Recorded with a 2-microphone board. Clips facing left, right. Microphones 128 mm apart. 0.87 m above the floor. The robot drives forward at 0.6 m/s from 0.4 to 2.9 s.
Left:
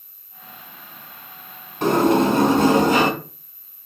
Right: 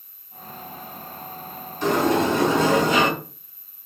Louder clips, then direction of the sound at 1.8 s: Left 4 dB; 60° left (ahead or behind).